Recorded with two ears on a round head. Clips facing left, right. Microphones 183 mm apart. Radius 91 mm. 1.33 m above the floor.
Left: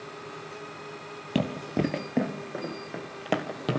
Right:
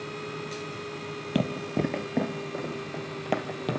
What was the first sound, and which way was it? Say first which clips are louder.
Running footsteps: even; 5° right (ahead or behind).